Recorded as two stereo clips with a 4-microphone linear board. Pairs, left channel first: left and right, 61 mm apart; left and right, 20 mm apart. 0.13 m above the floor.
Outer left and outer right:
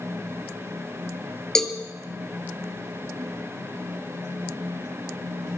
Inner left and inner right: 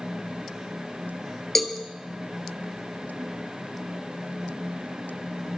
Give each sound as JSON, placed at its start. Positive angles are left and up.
{"t": 1.6, "sound": "a cowbell", "side_deg": 10, "distance_m": 1.5}